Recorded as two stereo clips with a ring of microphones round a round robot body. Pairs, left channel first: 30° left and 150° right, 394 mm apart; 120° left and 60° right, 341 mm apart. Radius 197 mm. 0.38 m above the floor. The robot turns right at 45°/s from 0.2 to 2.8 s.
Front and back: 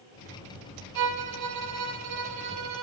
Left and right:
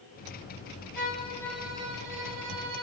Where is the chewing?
I don't hear chewing.